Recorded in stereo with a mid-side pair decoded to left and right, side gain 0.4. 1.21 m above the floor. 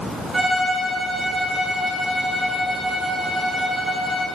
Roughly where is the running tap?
I don't hear a running tap.